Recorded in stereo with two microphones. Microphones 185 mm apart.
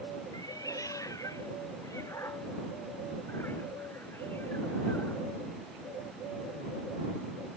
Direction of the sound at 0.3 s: 20° left (ahead or behind).